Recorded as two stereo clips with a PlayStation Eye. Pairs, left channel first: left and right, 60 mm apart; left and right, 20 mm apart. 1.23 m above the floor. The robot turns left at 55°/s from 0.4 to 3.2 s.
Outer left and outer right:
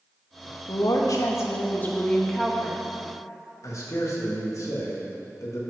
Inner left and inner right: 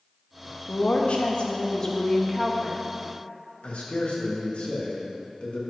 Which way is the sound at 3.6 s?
65° left (ahead or behind).